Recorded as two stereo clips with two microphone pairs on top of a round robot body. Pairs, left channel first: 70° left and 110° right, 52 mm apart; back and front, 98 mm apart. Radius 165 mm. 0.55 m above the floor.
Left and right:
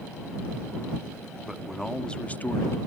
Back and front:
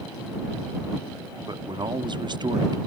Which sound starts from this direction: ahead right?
A man speaking, at 1.5 s.